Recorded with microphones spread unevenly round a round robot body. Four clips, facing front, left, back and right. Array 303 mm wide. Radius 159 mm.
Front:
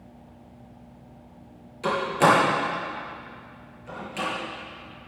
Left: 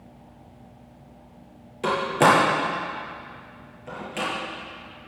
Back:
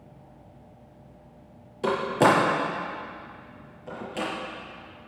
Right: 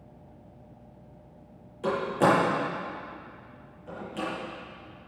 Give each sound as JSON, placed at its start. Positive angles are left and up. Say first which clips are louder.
{"t": 1.8, "sound": "a door slam", "louder": "left 4 dB, front 1 dB", "azimuth_deg": 125, "distance_m": 6.0}